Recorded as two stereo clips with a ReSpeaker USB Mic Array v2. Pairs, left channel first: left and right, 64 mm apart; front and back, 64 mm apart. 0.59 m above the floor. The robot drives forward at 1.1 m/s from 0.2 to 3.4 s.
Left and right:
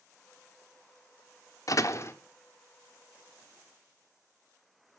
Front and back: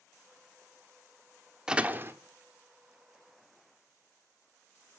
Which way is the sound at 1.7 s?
100° left.